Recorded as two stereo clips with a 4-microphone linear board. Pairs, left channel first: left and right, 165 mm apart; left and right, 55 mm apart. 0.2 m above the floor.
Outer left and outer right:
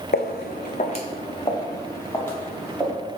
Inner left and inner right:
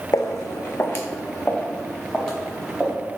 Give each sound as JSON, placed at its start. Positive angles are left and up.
{"t": 0.1, "sound": "footsteps", "side_deg": 75, "distance_m": 0.6}